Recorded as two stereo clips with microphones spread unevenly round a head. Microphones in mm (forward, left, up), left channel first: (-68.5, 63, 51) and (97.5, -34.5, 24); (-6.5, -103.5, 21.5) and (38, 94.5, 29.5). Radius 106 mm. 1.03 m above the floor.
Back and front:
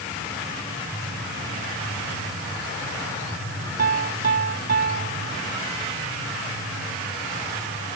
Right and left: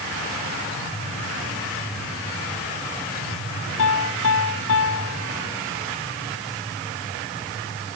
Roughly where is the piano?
Right.